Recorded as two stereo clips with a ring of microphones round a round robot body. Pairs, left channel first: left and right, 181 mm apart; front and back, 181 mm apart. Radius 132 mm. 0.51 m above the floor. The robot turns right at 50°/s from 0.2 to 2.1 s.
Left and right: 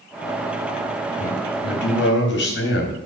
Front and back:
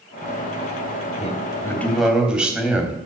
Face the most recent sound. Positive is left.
turn(degrees=100)